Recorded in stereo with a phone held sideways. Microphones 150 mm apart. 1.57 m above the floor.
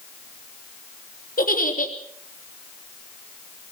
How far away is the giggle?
About 3.5 m.